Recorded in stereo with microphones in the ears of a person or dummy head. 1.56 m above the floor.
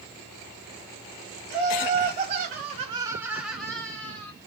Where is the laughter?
30° right (ahead or behind), 1.1 m; by 4.3 s 10° left (ahead or behind), 1.3 m.